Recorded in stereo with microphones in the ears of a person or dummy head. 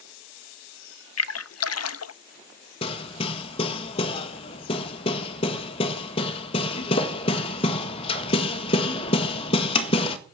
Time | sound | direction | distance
1.2 | a splash | 80° left | 0.6 m
2.8 | hammering | 30° left (ahead or behind) | 1.6 m